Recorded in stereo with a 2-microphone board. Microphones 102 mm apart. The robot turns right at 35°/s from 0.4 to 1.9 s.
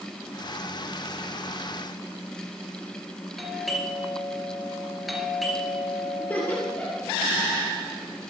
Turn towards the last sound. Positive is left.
turn(degrees=15)  # may be behind; listen again after turning